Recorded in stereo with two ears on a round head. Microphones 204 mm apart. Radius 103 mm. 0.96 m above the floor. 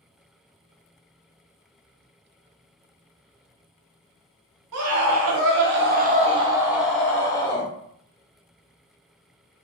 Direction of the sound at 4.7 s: 75° right (ahead or behind).